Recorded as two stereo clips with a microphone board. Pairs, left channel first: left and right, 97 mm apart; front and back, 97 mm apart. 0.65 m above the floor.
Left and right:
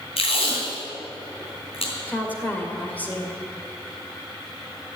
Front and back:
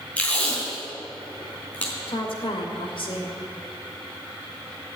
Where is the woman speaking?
15° left, 2.5 m.